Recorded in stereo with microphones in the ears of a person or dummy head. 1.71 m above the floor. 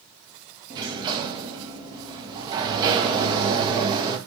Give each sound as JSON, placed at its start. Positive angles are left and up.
{"t": 0.7, "sound": "a sliding door", "side_deg": -25, "distance_m": 0.9}